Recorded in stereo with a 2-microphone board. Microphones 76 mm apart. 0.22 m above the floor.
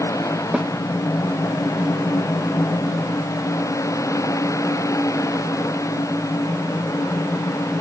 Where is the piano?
I don't hear a piano.